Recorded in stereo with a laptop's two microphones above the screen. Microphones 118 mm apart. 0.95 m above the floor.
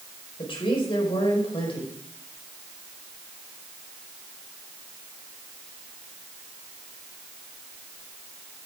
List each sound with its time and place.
0.4 s a woman speaking: 45° left (ahead or behind), 4.5 m